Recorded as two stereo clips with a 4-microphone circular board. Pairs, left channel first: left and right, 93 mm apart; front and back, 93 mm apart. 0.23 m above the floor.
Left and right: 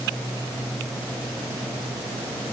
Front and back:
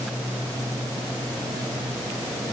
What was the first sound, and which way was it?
Only background noise.